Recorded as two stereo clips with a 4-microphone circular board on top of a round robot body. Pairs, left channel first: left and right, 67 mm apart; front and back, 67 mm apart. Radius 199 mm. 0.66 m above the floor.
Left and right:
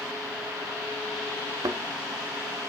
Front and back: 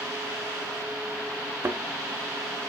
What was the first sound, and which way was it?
A thud, 125° right.